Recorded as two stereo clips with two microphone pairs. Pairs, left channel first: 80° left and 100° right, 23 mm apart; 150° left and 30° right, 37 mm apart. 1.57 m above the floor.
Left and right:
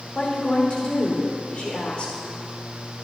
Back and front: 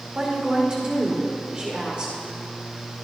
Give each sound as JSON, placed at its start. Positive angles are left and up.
{"t": 0.1, "sound": "a woman speaking", "azimuth_deg": 35, "distance_m": 4.5}